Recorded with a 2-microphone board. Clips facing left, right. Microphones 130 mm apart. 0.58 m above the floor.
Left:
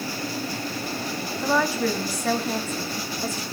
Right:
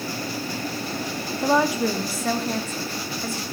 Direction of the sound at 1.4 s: 25° right (ahead or behind).